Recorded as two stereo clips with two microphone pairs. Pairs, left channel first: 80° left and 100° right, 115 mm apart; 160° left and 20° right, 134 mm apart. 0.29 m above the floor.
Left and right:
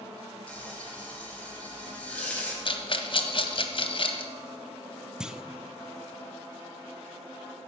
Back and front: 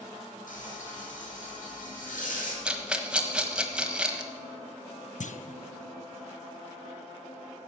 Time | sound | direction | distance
0.5 | frying | 160° left | 3 m
2.6 | a rattle | 60° left | 1.2 m
5.2 | a clunk | straight behind | 0.6 m